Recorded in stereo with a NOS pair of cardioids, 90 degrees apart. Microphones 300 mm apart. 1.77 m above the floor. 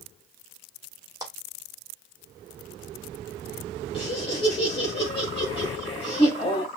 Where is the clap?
10° right, 2.5 m.